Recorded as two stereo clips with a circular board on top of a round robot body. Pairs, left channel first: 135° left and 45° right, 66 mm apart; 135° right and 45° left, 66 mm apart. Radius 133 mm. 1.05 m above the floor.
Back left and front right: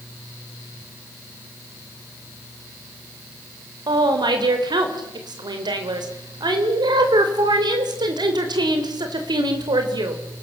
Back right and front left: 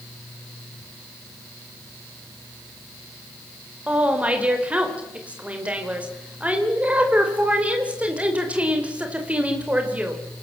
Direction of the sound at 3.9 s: 25° right.